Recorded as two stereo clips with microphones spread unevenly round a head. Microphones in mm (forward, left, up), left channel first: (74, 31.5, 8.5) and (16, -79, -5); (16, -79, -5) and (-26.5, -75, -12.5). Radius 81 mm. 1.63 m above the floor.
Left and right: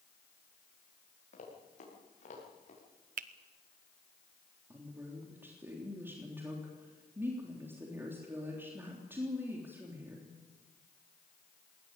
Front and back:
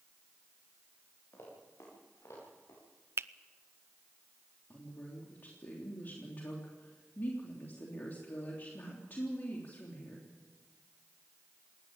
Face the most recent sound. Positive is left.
turn(degrees=-45)